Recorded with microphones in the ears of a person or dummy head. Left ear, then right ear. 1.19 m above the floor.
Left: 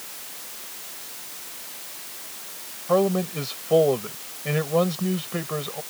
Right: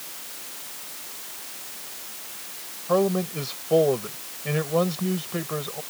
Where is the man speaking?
Centre (ahead or behind).